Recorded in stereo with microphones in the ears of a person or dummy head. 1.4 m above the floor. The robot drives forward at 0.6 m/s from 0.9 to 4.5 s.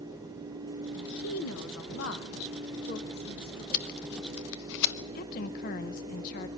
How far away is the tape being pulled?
About 1.4 m.